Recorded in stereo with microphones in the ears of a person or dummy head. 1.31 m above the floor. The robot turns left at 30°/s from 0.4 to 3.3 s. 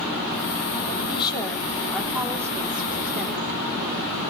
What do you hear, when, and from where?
0.9 s a woman speaking: 30° left, 3.5 m; by 4.1 s 45° right, 3.5 m